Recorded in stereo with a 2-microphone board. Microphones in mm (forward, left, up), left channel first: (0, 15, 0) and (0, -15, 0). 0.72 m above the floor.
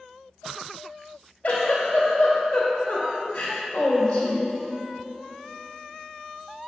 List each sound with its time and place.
1.4 s a giggle: 65° left (ahead or behind), 2 m